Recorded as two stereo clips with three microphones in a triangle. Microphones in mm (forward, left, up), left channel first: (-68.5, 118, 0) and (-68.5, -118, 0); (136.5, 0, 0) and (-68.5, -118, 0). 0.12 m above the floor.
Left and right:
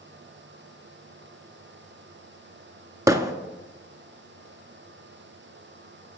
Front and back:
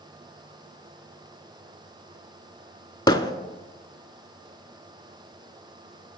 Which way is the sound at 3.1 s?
25° right.